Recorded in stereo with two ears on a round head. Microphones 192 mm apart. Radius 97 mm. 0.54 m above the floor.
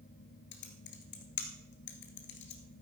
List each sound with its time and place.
0.5 s typing on a keyboard: 55° left (ahead or behind), 1.7 m